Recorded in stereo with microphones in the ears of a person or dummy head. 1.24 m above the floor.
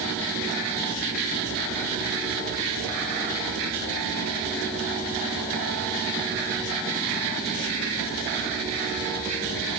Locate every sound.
Only background noise.